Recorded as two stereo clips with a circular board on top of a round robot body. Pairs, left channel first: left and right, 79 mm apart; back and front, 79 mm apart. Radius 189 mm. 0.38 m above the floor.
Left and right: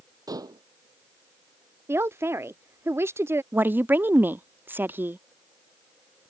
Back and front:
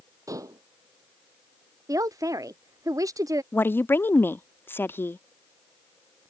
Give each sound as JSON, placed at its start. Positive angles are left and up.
{"t": 0.3, "sound": "dishes clattering", "azimuth_deg": -50}
{"t": 1.9, "sound": "a man speaking", "azimuth_deg": -35}
{"t": 3.5, "sound": "a woman speaking", "azimuth_deg": -140}